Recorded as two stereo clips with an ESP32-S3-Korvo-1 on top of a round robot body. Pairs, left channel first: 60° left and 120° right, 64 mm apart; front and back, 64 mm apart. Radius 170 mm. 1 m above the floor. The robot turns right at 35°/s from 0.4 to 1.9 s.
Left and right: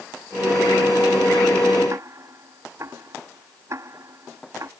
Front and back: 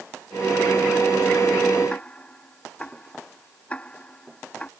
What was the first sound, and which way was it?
Ticking, 70° right.